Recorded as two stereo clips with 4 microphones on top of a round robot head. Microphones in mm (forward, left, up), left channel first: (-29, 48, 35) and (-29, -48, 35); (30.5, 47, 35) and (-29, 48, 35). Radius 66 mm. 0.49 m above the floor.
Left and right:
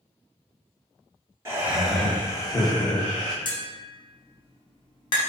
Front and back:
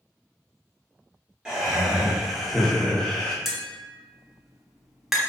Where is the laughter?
120° right, 0.8 m; by 3.4 s 80° left, 1.4 m.